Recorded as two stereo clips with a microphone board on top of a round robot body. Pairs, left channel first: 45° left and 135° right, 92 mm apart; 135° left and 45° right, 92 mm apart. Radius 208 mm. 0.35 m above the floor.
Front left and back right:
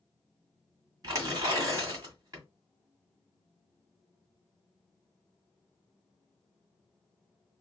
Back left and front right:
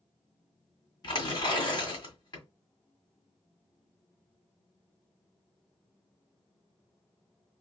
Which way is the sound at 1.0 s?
175° left.